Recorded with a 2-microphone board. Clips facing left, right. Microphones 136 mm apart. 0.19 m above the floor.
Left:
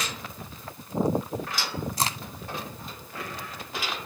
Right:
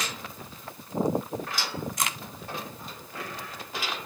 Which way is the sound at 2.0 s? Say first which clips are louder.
Left 6 dB; 35° left (ahead or behind).